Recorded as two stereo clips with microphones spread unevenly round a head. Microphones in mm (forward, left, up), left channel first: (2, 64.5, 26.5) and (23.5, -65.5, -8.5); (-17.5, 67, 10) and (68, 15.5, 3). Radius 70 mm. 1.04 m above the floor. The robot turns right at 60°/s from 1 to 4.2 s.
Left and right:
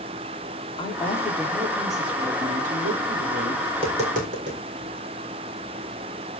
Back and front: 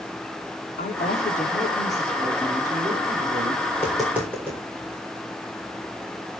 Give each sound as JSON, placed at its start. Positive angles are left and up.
{"t": 0.8, "sound": "a woman speaking", "azimuth_deg": 160, "distance_m": 3.0}
{"t": 3.7, "sound": "tapping", "azimuth_deg": -135, "distance_m": 4.0}